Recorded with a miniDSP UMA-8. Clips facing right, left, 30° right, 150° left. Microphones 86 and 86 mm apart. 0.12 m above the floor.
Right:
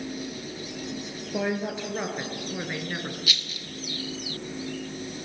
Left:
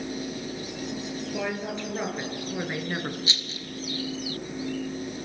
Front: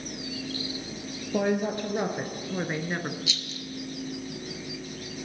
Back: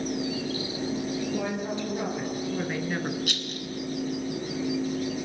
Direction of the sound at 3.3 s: 145° left.